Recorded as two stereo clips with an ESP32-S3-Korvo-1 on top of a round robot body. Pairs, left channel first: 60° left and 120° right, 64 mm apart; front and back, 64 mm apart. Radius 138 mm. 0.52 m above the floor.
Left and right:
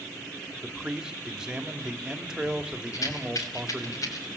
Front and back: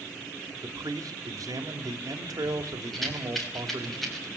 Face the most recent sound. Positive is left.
turn(degrees=85)